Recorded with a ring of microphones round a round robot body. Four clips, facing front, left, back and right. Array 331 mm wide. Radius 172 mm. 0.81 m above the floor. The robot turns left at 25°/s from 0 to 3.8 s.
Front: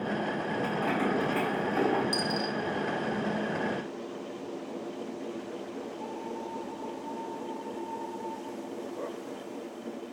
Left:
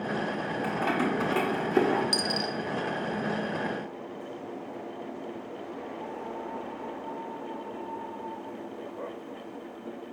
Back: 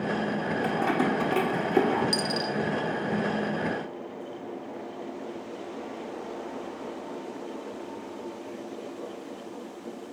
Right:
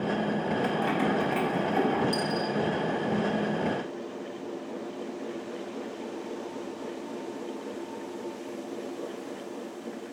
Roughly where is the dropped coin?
Behind left.